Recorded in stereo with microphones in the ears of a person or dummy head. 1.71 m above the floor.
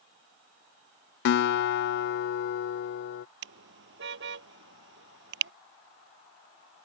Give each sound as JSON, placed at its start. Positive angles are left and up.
{"t": 1.2, "sound": "a guitar", "side_deg": 65}
{"t": 3.4, "sound": "a car horn", "side_deg": -70}